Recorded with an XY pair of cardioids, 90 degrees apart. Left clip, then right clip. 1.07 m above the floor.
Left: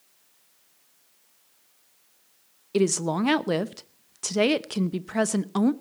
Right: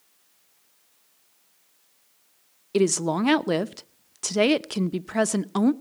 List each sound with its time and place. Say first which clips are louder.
2.7 s a woman speaking: right 2 dB; 15° right, 0.7 m